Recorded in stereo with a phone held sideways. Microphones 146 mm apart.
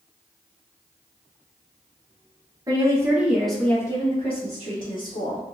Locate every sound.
2.7 s a woman speaking: 25° right (ahead or behind), 1.0 m; by 5.4 s 55° left (ahead or behind), 1.2 m